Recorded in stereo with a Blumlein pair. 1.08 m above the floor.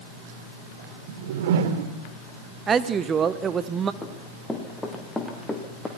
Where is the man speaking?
20° right, 1.1 m.